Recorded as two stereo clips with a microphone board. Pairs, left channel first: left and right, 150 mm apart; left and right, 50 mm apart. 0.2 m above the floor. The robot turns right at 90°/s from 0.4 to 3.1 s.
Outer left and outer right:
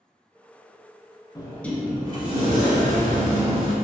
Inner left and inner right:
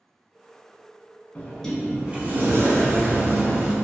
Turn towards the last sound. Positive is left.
turn(degrees=-60)